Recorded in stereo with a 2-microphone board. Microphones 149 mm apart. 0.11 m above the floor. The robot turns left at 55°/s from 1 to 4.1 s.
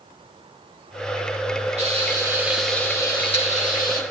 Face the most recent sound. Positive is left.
turn(degrees=100)